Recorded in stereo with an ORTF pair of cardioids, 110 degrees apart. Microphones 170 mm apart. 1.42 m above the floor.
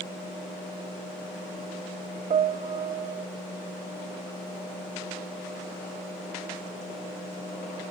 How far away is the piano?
About 0.6 m.